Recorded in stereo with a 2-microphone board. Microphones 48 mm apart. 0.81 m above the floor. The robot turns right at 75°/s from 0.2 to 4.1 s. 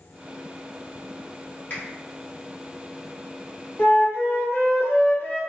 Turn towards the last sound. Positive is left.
turn(degrees=50)  # may be behind; listen again after turning